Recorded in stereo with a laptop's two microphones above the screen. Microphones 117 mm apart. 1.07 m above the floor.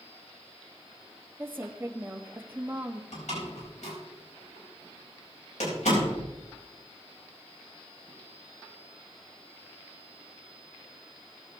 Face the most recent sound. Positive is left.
turn(degrees=85)